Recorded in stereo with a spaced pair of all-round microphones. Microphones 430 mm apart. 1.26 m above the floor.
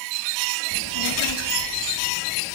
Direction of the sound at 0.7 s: 70° left (ahead or behind).